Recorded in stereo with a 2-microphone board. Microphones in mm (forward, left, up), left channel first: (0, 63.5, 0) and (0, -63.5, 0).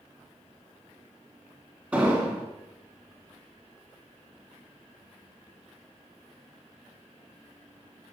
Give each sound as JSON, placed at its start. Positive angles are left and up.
{"t": 1.9, "sound": "an explosion", "side_deg": -10, "distance_m": 2.5}